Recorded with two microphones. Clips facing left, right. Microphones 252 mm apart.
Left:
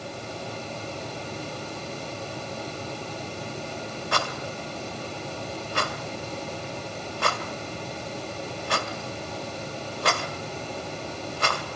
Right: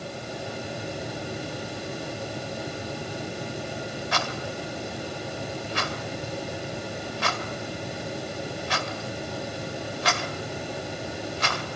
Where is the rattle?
55° left (ahead or behind), 1.7 m.